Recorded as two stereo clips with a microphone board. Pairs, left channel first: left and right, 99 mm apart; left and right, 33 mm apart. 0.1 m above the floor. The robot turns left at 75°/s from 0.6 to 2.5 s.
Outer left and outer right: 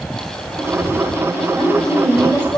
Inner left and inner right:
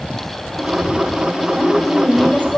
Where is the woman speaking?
165° right, 3.5 m; by 2.6 s 120° left, 3.5 m.